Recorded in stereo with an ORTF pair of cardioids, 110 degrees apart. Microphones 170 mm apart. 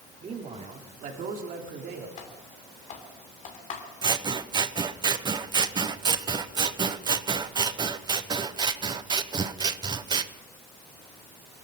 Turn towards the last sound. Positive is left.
turn(degrees=-25)